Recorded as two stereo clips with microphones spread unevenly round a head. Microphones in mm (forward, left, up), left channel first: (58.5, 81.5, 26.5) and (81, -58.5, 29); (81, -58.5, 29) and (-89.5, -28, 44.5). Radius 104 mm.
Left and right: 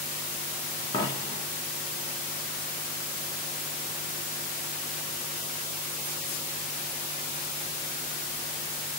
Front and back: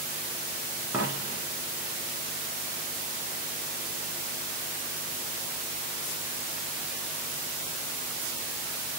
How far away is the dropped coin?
About 1.6 m.